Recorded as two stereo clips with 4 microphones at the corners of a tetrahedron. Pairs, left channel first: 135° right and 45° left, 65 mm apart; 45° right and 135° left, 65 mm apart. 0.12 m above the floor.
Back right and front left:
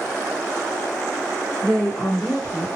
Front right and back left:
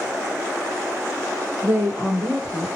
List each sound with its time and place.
1.6 s a woman speaking: 150° left, 1.7 m